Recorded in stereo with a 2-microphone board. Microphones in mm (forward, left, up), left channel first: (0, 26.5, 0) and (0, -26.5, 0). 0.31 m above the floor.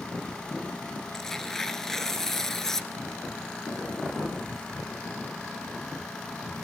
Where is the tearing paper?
5° left (ahead or behind), 1.1 m.